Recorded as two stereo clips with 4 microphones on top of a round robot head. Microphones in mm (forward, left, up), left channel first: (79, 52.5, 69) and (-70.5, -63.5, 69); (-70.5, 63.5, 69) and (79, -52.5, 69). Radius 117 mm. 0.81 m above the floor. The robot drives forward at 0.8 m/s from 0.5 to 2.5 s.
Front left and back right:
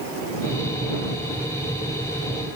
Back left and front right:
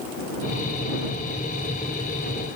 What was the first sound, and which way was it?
Only background noise.